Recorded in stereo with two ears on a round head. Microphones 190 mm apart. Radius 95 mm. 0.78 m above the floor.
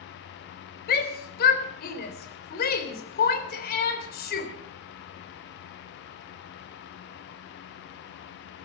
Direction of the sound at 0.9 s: 50° left (ahead or behind).